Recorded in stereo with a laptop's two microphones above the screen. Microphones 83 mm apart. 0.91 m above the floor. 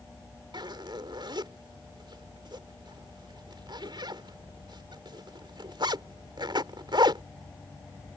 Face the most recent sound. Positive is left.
turn(degrees=-65)  # may be behind; listen again after turning